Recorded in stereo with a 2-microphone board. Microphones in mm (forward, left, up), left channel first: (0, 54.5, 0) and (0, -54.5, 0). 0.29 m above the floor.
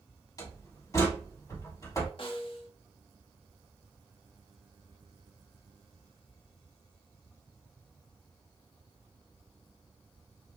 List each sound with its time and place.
0.4 s a door slam: 30° left (ahead or behind), 1.2 m
2.2 s a snare drum: 55° left (ahead or behind), 0.7 m